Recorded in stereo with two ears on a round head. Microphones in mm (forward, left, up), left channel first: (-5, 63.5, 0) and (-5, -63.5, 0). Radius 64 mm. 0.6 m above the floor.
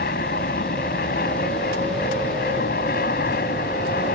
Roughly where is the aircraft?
Left.